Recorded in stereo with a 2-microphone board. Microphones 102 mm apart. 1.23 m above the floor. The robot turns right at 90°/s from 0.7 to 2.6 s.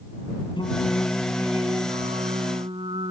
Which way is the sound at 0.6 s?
130° left.